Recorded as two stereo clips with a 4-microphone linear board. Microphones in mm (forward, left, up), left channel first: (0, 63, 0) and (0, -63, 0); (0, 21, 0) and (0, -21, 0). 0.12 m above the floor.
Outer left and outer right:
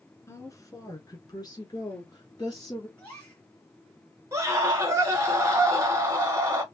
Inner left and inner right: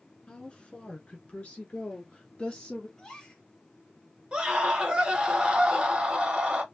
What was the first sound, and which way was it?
A woman speaking, 25° left (ahead or behind).